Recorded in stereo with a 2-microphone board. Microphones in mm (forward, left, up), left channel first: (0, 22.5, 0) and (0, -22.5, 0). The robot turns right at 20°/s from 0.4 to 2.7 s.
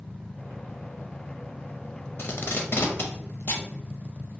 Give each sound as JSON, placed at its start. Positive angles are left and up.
{"t": 2.2, "sound": "tape being pulled", "side_deg": 55, "distance_m": 0.5}